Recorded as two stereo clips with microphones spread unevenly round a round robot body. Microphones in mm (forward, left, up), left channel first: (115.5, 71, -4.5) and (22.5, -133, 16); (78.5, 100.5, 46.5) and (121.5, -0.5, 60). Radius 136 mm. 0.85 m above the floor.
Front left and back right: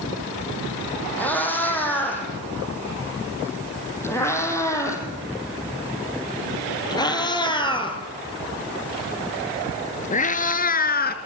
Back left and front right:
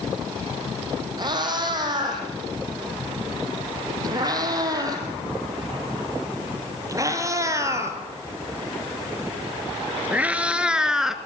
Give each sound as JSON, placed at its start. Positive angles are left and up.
{"t": 1.2, "sound": "a cat meowing", "azimuth_deg": -20, "distance_m": 6.5}